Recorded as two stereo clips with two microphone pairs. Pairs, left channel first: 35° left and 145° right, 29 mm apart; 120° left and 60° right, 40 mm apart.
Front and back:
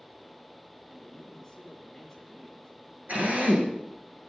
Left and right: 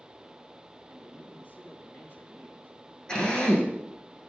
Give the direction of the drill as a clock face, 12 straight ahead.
6 o'clock.